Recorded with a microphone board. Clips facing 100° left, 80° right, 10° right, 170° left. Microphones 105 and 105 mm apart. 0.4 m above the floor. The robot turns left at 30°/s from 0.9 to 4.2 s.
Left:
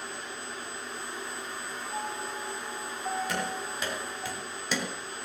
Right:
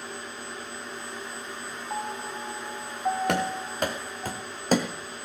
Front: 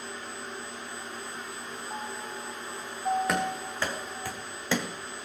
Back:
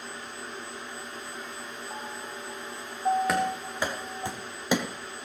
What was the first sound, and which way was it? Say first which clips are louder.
A piano: right 3 dB, front 2 dB; 95° right.